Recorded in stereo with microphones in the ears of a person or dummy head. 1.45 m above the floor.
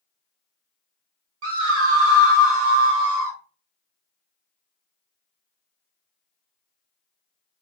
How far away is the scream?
About 1.4 m.